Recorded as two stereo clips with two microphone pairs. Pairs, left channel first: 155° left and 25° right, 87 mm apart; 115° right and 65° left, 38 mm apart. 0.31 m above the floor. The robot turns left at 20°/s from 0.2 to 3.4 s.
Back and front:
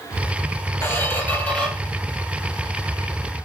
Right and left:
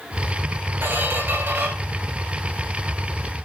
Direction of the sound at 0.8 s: 90° left.